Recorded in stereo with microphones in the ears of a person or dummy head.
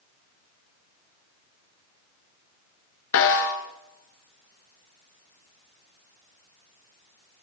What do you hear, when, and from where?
3.1 s a snare drum: 70° left (ahead or behind), 3.5 m